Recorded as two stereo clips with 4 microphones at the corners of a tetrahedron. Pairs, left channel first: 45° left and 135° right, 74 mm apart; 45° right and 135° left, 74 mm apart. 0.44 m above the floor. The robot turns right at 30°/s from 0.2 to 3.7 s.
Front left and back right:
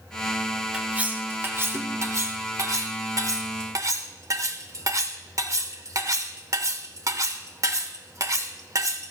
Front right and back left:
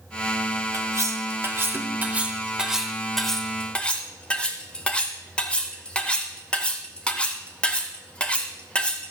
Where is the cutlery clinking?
155° left, 0.8 m; by 9.1 s 115° right, 0.8 m.